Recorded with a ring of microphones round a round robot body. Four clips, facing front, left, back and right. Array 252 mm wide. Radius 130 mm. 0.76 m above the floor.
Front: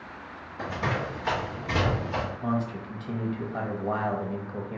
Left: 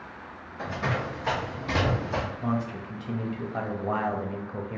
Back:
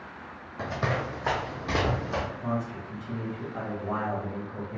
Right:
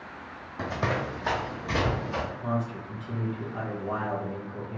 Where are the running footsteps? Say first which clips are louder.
Right 1 dB, even; 120° right, 1.5 m; by 2.3 s 145° left, 1.7 m.